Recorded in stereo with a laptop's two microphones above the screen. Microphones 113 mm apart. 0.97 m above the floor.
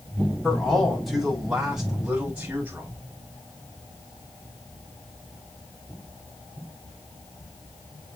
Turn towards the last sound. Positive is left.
turn(degrees=-15)  # may be behind; listen again after turning